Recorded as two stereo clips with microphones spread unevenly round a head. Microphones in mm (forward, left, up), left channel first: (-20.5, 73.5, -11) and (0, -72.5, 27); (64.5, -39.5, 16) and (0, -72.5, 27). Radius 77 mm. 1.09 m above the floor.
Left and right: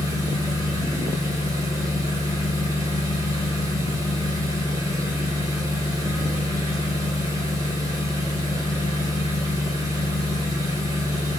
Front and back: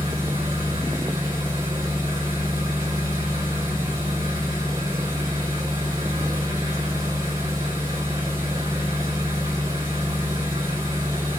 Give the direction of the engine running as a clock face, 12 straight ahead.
5 o'clock.